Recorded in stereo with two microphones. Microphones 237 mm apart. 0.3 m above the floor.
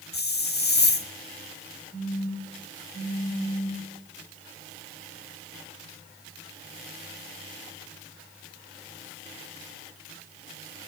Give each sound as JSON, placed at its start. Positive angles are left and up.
{"t": 0.1, "sound": "a hiss", "side_deg": 45, "distance_m": 0.5}
{"t": 1.9, "sound": "a phone buzzing", "side_deg": 20, "distance_m": 4.5}